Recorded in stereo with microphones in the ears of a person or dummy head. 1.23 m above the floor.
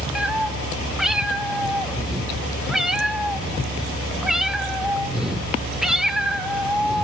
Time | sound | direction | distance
0.1 | a cat meowing | centre (ahead or behind) | 1.7 m